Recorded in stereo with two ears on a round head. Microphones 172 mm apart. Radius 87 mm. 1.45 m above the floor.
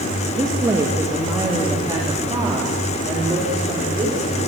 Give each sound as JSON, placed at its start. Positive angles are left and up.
{"t": 0.4, "sound": "a woman speaking", "side_deg": -15, "distance_m": 2.5}